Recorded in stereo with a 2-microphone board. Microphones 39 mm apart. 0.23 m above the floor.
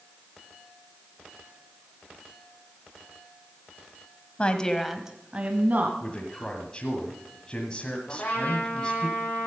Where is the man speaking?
25° left (ahead or behind), 1.5 m.